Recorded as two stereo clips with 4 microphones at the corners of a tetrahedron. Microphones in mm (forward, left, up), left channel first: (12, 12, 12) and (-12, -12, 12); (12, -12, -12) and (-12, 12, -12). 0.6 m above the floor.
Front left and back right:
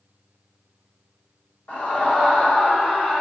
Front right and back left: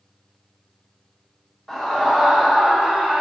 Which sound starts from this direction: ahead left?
A scream, at 1.7 s.